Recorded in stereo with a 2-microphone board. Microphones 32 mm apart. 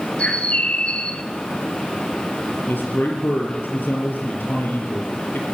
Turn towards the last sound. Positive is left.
turn(degrees=80)